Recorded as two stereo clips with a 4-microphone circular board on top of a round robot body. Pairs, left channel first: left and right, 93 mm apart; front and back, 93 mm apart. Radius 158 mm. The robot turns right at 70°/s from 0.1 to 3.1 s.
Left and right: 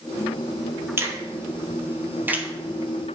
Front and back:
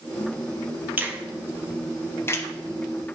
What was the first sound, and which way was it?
A finger snap, 130° right.